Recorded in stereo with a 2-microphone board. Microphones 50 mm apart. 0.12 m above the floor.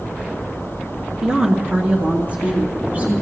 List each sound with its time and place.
1.2 s a woman speaking: 20° right (ahead or behind), 1.8 m; by 3.2 s 50° right (ahead or behind), 3 m